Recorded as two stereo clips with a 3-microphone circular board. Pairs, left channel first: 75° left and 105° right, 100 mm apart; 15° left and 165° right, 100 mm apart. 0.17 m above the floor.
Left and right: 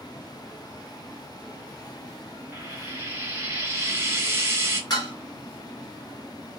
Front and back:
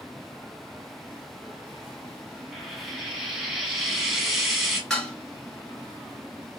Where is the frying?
75° right, 0.9 m.